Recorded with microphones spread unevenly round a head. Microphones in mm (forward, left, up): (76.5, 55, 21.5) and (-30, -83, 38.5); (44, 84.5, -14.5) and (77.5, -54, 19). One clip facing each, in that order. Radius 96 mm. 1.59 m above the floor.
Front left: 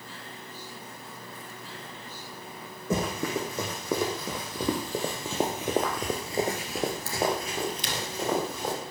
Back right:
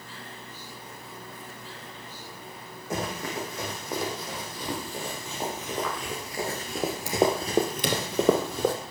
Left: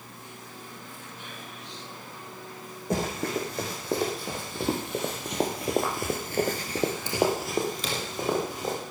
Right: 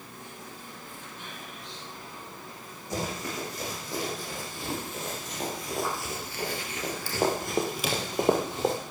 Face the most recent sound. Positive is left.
turn(degrees=-130)